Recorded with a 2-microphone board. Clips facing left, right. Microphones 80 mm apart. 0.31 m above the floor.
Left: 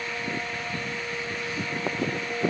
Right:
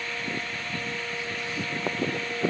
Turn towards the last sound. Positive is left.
No sound to turn to.